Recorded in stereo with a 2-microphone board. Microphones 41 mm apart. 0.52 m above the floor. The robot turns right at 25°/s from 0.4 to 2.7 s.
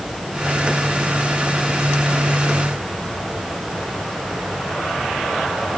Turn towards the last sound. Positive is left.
No sound to turn to.